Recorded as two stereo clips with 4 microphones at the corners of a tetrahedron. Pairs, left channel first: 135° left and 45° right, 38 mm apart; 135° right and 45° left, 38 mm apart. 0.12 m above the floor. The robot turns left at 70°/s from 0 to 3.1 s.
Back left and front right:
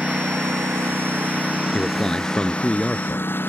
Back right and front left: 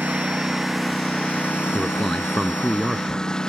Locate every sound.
0.0 s a lawn mower: 10° left; by 3.5 s 150° left
1.7 s a man speaking: straight behind; by 3.3 s 85° left